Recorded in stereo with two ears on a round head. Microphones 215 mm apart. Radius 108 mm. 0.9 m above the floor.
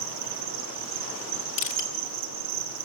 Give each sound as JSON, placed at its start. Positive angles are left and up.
{"t": 0.0, "sound": "an insect", "side_deg": -80, "distance_m": 6.0}
{"t": 1.6, "sound": "crushing", "side_deg": 55, "distance_m": 2.5}